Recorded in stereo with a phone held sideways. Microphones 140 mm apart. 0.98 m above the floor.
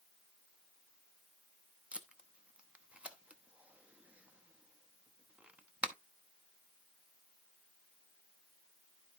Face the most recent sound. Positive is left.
turn(degrees=-10)  # may be behind; listen again after turning